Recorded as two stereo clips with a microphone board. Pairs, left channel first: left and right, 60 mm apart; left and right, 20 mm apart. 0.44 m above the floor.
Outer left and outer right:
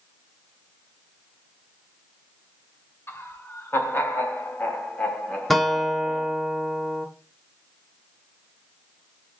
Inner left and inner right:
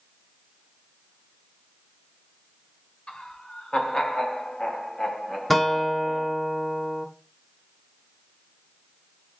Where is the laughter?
45° left (ahead or behind), 1.7 m; by 6.3 s 5° right (ahead or behind), 1.2 m.